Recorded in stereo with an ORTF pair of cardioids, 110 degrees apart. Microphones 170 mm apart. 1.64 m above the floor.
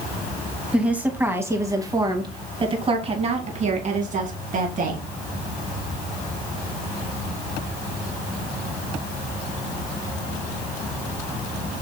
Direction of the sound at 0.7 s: 5° right.